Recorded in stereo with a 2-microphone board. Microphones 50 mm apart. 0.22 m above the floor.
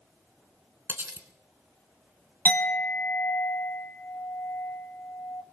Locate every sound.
0.9 s cutlery clinking: 45° right (ahead or behind), 1.3 m
2.5 s a clink: 35° left (ahead or behind), 1.0 m